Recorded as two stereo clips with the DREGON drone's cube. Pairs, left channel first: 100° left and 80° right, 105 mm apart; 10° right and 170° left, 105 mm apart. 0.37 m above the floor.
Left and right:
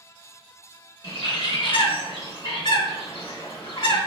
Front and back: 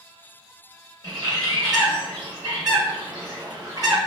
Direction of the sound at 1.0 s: 130° left.